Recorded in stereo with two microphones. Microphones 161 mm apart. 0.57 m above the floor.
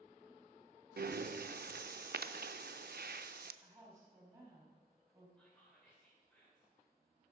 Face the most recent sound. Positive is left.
turn(degrees=5)  # may be behind; listen again after turning